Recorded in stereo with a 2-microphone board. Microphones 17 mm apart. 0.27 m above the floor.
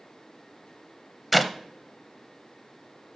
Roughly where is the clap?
Centre.